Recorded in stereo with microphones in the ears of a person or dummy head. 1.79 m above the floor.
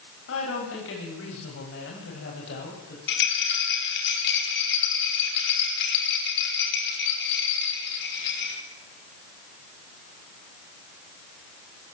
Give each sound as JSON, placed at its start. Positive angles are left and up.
{"t": 0.3, "sound": "a woman speaking", "side_deg": 80, "distance_m": 9.5}
{"t": 3.1, "sound": "a rattle", "side_deg": 70, "distance_m": 5.5}